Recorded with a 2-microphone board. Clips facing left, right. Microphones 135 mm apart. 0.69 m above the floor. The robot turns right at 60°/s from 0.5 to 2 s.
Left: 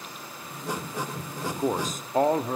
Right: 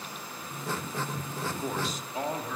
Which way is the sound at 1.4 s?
30° left.